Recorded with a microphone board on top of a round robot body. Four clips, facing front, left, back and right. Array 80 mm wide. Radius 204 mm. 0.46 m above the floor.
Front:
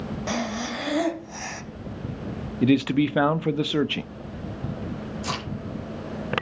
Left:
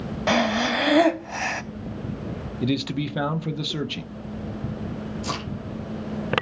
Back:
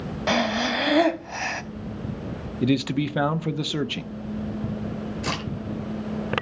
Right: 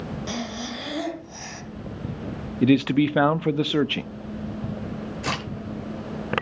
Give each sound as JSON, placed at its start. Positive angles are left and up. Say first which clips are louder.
{"t": 0.3, "sound": "breathing", "louder": "left 15 dB, back 7 dB", "azimuth_deg": 120, "distance_m": 1.3}
{"t": 2.6, "sound": "a man speaking", "louder": "right 8 dB, front 3 dB", "azimuth_deg": -65, "distance_m": 1.0}
{"t": 5.2, "sound": "a crack", "louder": "right 3 dB, back 1 dB", "azimuth_deg": -110, "distance_m": 9.5}